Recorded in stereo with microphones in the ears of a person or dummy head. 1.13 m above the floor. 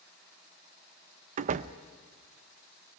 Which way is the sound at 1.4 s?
40° right (ahead or behind).